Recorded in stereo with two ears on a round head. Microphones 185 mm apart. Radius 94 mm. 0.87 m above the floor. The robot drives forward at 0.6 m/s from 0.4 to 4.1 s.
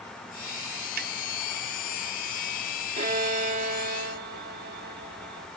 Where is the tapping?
45° right (ahead or behind).